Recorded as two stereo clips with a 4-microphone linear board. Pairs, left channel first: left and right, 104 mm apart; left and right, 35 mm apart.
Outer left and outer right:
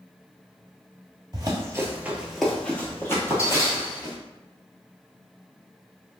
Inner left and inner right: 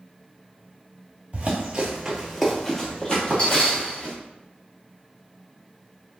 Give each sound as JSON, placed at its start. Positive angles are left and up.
{"t": 1.3, "sound": "running footsteps", "side_deg": -40, "distance_m": 0.8}